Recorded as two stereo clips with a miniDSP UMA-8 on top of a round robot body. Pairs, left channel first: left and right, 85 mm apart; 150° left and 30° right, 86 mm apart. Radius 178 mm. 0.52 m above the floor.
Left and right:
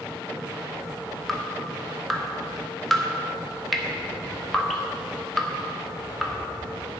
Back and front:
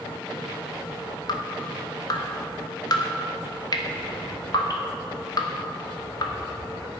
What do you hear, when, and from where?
1.3 s dripping: straight behind, 1.4 m